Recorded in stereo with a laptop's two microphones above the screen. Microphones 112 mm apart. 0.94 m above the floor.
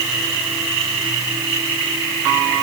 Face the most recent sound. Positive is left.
No sound to turn to.